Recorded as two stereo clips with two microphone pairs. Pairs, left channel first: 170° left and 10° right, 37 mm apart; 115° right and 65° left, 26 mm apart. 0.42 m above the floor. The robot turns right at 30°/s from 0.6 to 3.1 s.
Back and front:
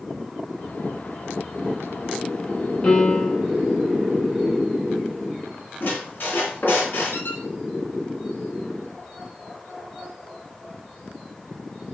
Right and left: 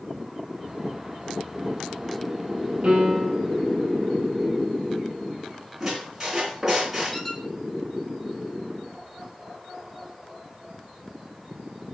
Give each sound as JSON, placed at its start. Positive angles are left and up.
{"t": 2.8, "sound": "a piano", "azimuth_deg": 110, "distance_m": 3.5}
{"t": 5.8, "sound": "a squeak", "azimuth_deg": 135, "distance_m": 2.5}
{"t": 7.1, "sound": "a squeak", "azimuth_deg": 160, "distance_m": 2.0}